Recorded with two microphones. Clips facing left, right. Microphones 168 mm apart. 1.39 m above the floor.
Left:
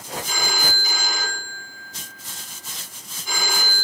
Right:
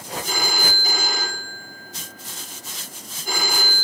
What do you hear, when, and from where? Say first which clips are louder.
0.2 s a phone ringing: right 3 dB; 55° right (ahead or behind), 2.5 m